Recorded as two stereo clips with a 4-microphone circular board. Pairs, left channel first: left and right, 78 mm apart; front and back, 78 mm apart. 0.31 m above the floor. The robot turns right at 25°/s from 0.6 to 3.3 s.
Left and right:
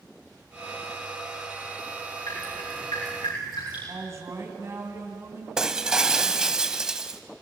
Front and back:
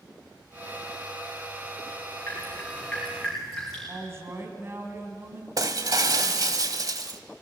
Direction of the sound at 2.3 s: 65° left.